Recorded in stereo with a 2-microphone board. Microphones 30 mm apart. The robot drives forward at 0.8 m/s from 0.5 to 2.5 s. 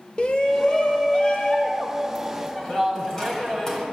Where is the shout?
40° left (ahead or behind), 1.0 m; by 3.9 s 20° left (ahead or behind), 1.8 m.